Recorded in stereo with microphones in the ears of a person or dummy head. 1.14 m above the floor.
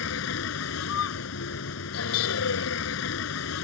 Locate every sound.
0.0 s a vehicle: 80° left